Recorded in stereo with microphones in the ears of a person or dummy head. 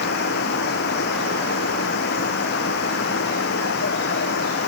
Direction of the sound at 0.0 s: 65° left (ahead or behind).